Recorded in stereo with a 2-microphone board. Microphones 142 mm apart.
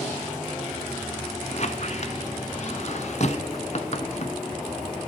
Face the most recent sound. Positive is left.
turn(degrees=50)  # may be behind; listen again after turning